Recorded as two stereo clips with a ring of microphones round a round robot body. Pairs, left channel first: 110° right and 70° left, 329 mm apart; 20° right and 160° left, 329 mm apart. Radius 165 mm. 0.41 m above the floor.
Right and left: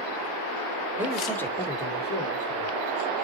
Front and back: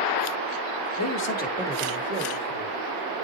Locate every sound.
1.0 s a man speaking: 15° right, 1.2 m; by 2.8 s 160° right, 1.6 m